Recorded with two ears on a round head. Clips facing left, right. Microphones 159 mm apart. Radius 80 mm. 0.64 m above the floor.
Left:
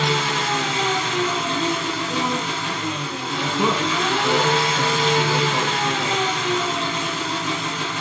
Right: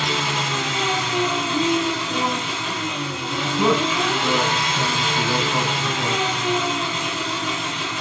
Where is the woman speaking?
15° right (ahead or behind), 5.5 m.